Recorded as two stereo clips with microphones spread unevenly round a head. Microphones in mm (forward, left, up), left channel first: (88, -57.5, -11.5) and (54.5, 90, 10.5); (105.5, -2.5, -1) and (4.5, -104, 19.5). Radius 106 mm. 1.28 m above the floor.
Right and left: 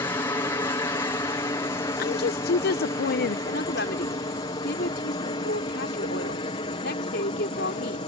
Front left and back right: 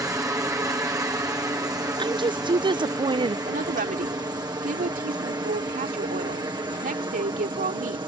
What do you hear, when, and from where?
0.0 s a helicopter: 90° right
2.0 s a woman speaking: 75° right
3.5 s a woman speaking: 115° right